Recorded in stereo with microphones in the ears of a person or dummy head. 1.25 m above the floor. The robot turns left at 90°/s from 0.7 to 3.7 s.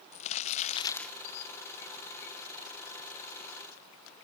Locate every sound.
0.1 s crumpling: 35° left, 0.7 m; by 1.2 s 5° right, 0.7 m